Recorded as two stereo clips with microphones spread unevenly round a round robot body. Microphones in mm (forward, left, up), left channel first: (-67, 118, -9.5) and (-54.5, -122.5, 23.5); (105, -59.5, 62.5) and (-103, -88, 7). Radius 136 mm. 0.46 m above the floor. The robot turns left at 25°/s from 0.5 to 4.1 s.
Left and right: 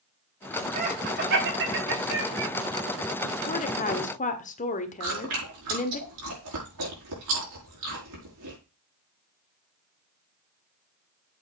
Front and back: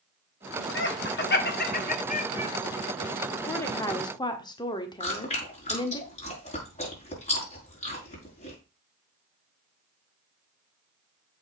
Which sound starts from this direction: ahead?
Laughter, at 0.8 s.